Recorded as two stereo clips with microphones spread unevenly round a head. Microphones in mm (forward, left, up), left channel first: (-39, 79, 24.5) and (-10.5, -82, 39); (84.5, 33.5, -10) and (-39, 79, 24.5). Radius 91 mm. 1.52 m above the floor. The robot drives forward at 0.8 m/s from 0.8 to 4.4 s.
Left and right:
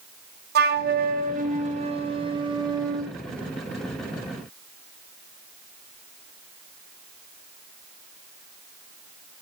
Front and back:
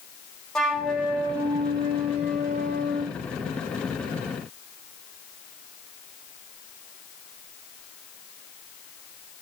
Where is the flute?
105° right, 1.3 m; by 3.1 s 150° right, 2.5 m.